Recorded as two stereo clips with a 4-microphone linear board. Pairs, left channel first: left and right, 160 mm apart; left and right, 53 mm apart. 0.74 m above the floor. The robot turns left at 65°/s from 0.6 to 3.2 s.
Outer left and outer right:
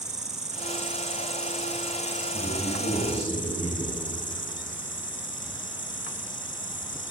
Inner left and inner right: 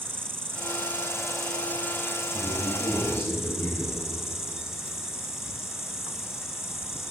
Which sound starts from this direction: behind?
A man speaking, at 2.3 s.